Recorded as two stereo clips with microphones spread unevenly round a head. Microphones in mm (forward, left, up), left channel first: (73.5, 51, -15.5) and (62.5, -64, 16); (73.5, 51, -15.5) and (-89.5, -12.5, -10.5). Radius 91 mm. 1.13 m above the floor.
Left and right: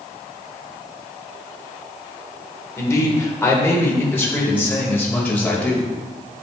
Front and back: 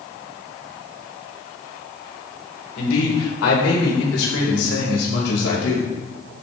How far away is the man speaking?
About 4.5 m.